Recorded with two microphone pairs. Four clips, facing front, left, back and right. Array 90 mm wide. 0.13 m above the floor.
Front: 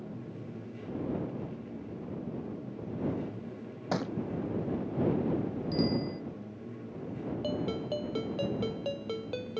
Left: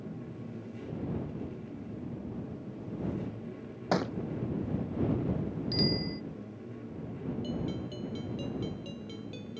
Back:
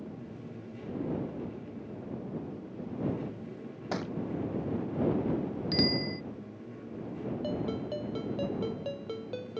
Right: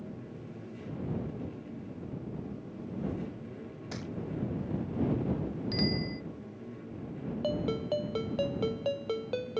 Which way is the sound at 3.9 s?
85° left.